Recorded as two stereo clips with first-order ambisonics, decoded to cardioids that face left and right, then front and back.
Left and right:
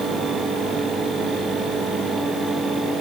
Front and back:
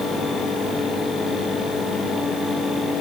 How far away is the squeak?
I don't hear a squeak.